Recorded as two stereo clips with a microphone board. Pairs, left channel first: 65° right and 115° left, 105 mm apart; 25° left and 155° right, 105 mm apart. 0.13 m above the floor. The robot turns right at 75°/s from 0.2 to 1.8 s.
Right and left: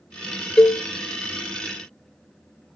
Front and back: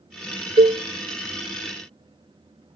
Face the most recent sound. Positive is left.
turn(degrees=-50)